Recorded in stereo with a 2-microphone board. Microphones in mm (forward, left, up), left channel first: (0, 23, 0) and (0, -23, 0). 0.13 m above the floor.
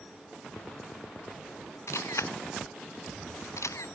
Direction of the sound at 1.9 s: 75° left (ahead or behind).